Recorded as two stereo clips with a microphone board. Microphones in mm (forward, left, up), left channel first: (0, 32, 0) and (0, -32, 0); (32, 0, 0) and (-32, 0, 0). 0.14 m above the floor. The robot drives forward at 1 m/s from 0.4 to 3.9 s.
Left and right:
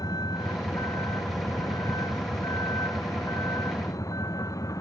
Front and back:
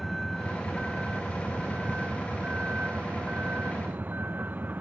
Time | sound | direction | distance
0.0 | a vehicle | 90° left | ?